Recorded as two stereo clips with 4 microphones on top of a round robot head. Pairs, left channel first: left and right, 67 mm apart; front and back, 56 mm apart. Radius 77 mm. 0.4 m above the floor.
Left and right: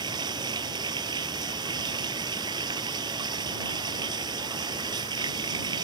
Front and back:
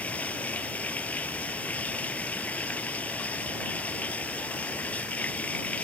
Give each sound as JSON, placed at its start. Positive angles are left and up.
{"t": 0.0, "sound": "running water", "azimuth_deg": -70}